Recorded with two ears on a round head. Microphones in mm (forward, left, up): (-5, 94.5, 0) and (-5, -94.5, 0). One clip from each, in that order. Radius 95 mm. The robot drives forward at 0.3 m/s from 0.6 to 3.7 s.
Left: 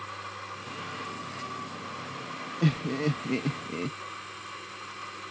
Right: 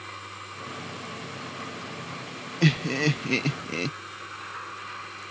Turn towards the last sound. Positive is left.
turn(degrees=-70)  # may be behind; listen again after turning